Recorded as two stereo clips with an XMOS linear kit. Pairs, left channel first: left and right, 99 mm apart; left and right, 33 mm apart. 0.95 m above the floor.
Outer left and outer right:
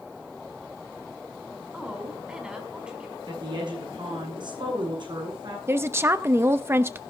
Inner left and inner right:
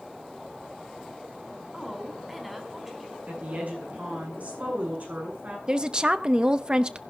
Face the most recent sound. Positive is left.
turn(degrees=-25)  # may be behind; listen again after turning